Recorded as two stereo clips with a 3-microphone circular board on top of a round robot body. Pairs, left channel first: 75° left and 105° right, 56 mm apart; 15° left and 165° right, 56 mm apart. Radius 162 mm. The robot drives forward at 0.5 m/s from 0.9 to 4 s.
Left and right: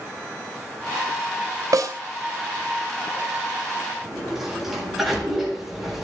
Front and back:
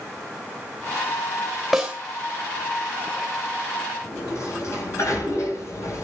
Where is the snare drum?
75° right, 2.5 m; by 1.9 s 80° right, 2.5 m.